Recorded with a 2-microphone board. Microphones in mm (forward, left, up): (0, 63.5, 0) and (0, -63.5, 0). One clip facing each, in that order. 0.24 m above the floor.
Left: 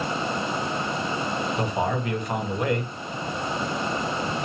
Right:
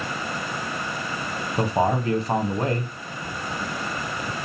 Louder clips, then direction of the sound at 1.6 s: Right 7 dB; 30° right (ahead or behind).